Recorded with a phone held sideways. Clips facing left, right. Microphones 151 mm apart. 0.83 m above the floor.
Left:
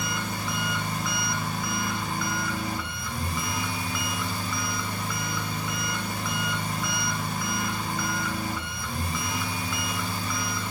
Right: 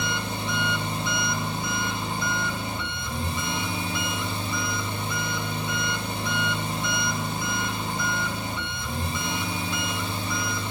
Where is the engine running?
25° right (ahead or behind), 2.5 m.